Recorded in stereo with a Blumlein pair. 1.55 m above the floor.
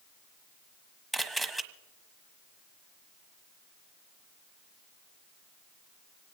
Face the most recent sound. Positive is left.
turn(degrees=-5)